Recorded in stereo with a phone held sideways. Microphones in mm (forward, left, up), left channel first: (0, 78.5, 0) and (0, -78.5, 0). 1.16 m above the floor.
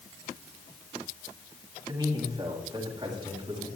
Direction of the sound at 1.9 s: 25° right (ahead or behind).